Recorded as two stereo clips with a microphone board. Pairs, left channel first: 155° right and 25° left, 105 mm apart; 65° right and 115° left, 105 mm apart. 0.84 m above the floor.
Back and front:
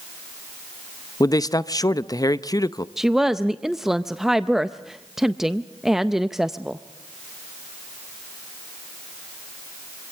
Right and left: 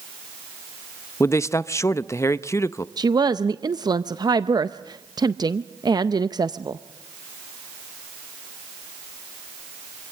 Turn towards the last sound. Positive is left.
turn(degrees=110)